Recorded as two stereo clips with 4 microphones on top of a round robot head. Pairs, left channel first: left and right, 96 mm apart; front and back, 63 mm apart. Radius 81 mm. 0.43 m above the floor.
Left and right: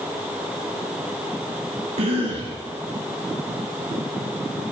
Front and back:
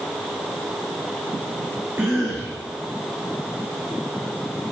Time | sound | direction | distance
2.0 | a cough | 110° right | 3.5 m